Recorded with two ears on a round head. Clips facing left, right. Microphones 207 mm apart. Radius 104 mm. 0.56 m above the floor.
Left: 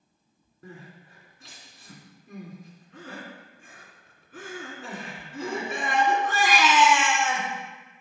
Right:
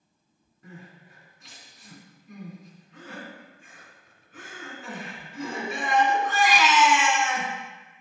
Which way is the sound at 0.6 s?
50° left (ahead or behind).